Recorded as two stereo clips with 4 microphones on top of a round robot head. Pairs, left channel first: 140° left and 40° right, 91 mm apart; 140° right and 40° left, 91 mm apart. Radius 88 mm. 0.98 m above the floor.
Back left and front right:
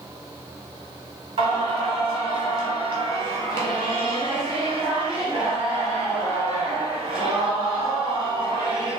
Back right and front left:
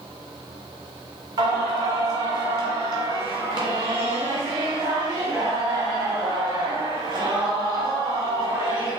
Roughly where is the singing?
Ahead.